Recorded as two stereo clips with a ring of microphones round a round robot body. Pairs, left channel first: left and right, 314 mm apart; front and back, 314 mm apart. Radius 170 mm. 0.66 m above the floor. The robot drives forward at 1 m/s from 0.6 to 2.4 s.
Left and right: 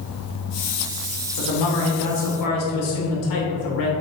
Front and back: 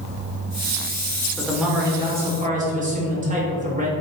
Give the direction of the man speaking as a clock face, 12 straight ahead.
9 o'clock.